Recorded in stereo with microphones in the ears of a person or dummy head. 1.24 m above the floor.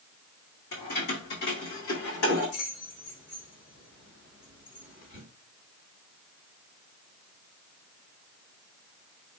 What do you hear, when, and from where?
0.7 s keys jangling: 50° left (ahead or behind), 1.8 m; by 5.2 s 55° left (ahead or behind), 4.5 m